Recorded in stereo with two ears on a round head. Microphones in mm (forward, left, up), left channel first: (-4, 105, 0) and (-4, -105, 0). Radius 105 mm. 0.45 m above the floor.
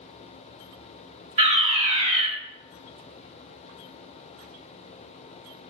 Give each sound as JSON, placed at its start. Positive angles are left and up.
{"t": 1.4, "sound": "a fire alarm", "side_deg": -30, "distance_m": 3.5}